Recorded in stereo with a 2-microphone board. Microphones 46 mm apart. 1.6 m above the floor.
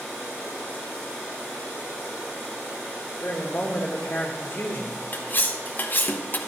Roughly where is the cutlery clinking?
Left.